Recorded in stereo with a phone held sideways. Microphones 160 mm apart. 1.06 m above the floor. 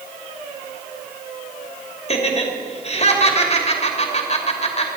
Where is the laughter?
40° left (ahead or behind), 2.5 m.